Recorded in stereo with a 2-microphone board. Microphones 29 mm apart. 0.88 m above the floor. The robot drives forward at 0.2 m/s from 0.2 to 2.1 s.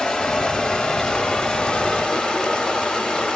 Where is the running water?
25° left (ahead or behind), 0.8 m; by 3.4 s 30° left (ahead or behind), 0.7 m.